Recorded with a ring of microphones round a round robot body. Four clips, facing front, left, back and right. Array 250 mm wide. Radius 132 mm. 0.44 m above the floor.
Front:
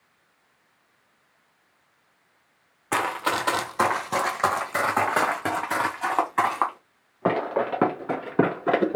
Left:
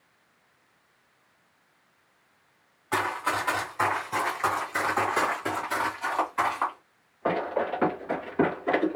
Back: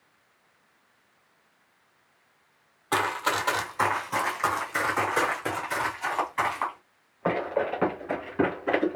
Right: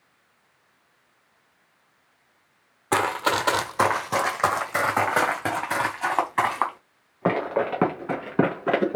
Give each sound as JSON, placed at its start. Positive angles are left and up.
{"t": 2.9, "sound": "running footsteps", "azimuth_deg": -80, "distance_m": 0.8}